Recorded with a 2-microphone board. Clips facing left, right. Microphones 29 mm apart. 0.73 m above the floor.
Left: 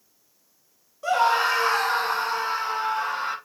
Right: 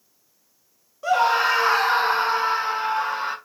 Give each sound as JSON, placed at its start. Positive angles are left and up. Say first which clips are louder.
{"t": 1.0, "sound": "a scream", "louder": "right 2 dB", "side_deg": -5, "distance_m": 1.0}